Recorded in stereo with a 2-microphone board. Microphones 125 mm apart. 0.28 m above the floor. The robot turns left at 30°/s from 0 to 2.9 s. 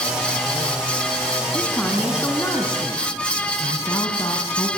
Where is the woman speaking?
175° right, 3 m; by 4.7 s 145° left, 3 m.